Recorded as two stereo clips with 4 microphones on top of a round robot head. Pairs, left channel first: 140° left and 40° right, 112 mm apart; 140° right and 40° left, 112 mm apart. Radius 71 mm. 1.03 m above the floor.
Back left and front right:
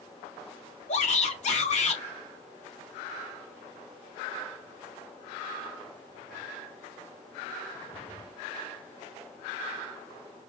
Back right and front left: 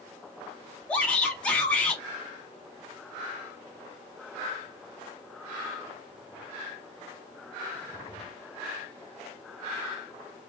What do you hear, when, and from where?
0.9 s a shout: 140° left, 3 m